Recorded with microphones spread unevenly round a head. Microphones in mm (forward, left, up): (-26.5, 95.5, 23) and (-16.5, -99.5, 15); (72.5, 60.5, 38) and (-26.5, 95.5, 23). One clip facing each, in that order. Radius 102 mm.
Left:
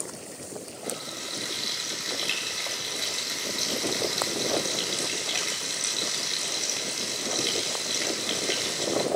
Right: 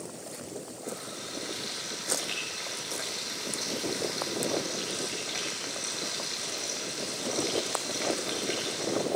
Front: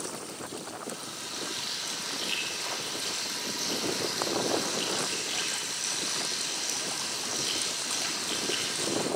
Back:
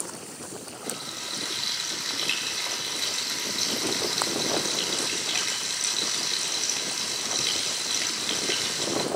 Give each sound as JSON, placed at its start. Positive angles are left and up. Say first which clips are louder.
{"t": 0.8, "sound": "frying", "louder": "left 2 dB, back 2 dB", "azimuth_deg": 140, "distance_m": 9.5}